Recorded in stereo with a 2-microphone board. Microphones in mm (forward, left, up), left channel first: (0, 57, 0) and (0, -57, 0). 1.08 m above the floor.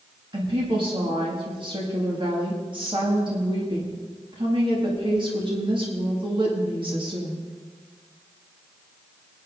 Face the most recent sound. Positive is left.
turn(degrees=-50)  # may be behind; listen again after turning